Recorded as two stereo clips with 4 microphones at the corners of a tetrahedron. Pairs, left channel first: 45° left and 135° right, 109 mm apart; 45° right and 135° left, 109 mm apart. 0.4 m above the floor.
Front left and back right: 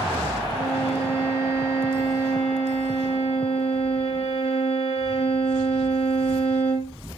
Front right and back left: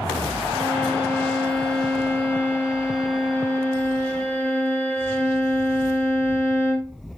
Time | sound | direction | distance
0.5 | a violin | 35° left | 4 m